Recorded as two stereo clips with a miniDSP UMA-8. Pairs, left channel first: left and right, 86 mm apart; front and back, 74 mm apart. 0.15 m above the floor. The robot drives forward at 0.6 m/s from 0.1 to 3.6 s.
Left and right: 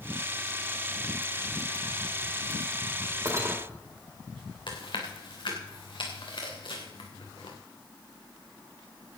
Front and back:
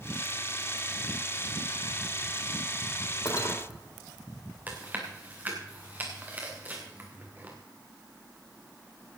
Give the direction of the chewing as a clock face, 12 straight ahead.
8 o'clock.